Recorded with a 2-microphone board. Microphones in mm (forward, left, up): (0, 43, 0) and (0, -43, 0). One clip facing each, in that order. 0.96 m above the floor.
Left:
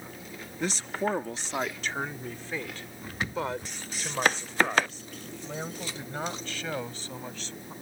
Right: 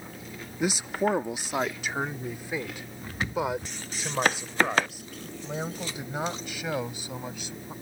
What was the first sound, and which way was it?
A man speaking, 10° right (ahead or behind).